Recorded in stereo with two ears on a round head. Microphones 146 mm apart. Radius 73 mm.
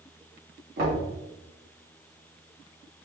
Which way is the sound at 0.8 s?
65° right (ahead or behind).